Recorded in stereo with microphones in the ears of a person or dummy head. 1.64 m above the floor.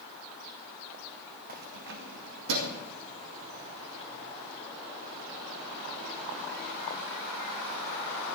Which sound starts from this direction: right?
Keys jangling, at 1.5 s.